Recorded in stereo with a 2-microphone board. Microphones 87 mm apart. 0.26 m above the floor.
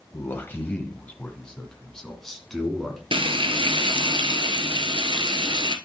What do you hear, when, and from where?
0.1 s a man speaking: 30° left (ahead or behind), 1.1 m; by 3.0 s centre (ahead or behind), 2.5 m
3.1 s frying: 90° right, 0.8 m